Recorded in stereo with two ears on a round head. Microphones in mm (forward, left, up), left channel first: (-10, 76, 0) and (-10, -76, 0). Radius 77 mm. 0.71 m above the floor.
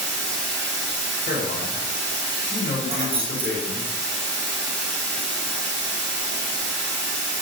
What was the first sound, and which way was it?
Running water, 80° right.